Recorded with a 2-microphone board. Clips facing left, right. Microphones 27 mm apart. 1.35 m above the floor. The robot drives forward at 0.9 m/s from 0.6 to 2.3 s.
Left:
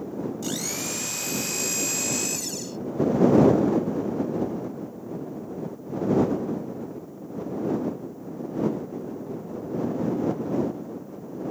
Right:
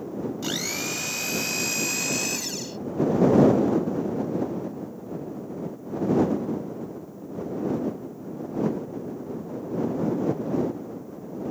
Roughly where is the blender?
Right.